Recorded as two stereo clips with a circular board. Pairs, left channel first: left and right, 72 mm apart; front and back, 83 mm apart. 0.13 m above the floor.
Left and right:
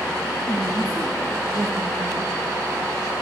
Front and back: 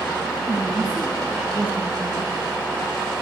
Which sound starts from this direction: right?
A woman speaking, at 0.5 s.